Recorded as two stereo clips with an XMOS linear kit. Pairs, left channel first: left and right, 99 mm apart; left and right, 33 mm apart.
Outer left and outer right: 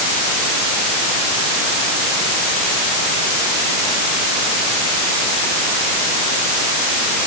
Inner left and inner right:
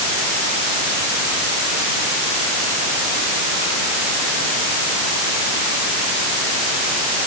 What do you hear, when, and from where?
Only background noise.